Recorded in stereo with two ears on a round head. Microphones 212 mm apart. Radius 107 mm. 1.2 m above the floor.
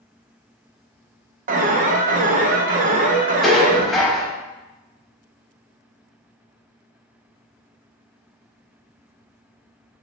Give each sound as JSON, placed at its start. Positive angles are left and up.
{"t": 1.5, "sound": "an alarm", "side_deg": -35, "distance_m": 0.5}
{"t": 3.4, "sound": "dishes clattering", "side_deg": 0, "distance_m": 0.8}